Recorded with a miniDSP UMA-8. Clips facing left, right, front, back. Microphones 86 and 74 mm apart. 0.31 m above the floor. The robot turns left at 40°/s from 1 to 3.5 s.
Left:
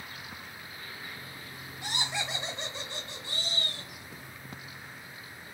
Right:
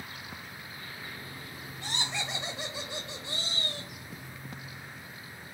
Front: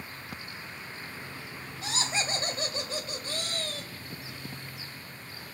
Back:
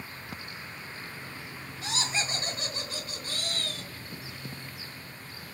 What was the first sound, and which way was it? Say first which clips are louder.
Laughter: left 1 dB, even; 20° left.